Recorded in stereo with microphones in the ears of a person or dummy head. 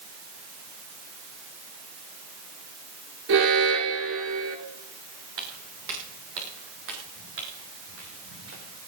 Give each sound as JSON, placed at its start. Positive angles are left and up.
{"t": 3.3, "sound": "an alarm", "side_deg": -80, "distance_m": 4.0}
{"t": 5.4, "sound": "footsteps", "side_deg": -75, "distance_m": 7.0}